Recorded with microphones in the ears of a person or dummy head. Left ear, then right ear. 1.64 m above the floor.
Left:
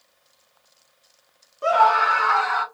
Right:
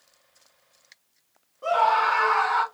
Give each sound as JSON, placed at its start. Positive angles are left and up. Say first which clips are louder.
{"t": 1.6, "sound": "a scream", "louder": "left 4 dB", "side_deg": 70, "distance_m": 0.8}